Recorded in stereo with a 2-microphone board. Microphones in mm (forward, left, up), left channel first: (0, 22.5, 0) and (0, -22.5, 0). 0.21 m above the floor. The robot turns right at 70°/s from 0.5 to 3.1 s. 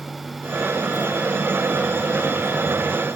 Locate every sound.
Only background noise.